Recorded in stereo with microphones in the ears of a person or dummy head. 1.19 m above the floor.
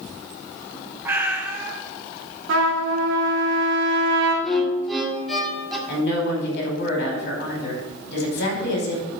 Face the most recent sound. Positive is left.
turn(degrees=65)  # may be behind; listen again after turning